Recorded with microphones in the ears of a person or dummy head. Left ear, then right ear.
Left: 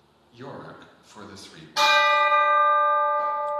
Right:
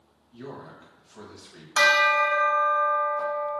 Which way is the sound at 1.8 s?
50° right (ahead or behind).